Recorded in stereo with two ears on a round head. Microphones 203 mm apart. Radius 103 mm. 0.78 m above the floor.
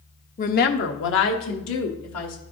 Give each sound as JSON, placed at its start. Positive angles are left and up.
{"t": 0.4, "sound": "a woman speaking", "side_deg": 35, "distance_m": 0.6}